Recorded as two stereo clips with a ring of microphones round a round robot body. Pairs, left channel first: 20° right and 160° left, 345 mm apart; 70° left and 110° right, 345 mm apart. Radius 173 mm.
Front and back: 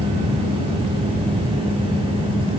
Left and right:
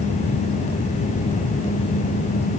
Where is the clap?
I don't hear a clap.